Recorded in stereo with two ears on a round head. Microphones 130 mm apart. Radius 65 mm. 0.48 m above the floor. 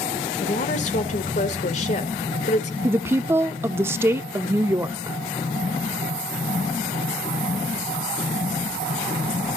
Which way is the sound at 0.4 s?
50° left (ahead or behind).